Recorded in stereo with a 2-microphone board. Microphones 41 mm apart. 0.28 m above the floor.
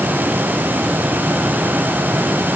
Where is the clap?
No clap in this recording.